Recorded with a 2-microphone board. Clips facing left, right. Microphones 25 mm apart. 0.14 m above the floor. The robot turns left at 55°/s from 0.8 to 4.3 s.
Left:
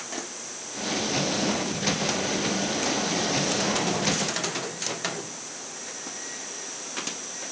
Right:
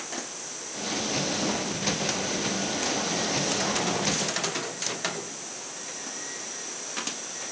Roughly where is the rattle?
No rattle in this recording.